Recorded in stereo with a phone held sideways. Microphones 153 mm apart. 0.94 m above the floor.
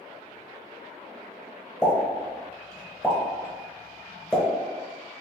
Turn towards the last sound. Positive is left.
turn(degrees=5)  # may be behind; listen again after turning